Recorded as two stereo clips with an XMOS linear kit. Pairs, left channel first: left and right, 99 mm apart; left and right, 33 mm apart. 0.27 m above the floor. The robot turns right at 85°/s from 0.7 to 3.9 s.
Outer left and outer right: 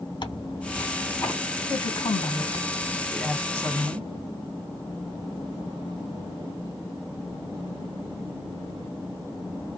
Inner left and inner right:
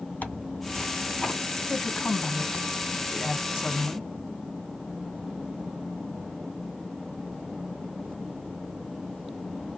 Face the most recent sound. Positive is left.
turn(degrees=-130)